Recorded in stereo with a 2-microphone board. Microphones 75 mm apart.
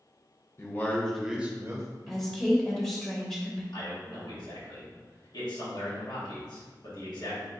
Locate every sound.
0.6 s a man speaking: 35° left (ahead or behind), 0.9 m; by 1.9 s 40° right (ahead or behind), 1.0 m
2.1 s a woman speaking: 5° left (ahead or behind), 0.9 m
3.7 s a man speaking: 70° left (ahead or behind), 1.6 m